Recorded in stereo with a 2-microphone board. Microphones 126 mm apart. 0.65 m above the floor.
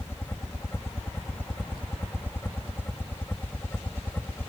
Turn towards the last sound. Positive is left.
turn(degrees=15)  # may be behind; listen again after turning